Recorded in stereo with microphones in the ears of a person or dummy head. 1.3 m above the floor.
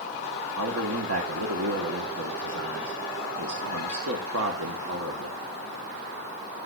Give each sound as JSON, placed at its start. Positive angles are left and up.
{"t": 0.6, "sound": "a man speaking", "side_deg": -75, "distance_m": 1.1}